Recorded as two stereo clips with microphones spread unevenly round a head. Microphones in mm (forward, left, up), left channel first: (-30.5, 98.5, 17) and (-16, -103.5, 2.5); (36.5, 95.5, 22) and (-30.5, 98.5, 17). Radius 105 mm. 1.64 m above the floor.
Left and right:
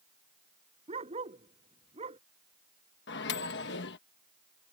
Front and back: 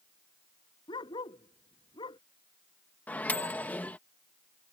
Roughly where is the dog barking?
Ahead.